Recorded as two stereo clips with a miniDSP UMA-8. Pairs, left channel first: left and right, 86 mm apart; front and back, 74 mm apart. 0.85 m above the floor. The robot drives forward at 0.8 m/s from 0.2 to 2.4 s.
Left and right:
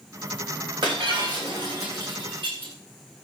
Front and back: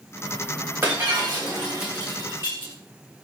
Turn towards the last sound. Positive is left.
turn(degrees=-125)